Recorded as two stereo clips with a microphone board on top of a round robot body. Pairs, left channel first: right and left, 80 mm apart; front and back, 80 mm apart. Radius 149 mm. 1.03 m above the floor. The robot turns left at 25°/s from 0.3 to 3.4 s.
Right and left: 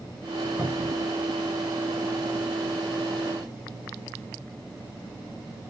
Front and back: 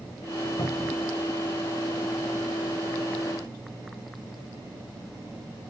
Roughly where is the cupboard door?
Ahead left.